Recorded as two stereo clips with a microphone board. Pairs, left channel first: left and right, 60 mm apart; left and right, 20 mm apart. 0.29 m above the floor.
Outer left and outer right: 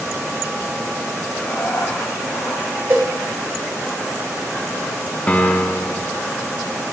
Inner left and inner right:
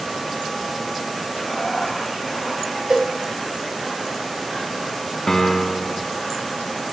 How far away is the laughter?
About 1.8 m.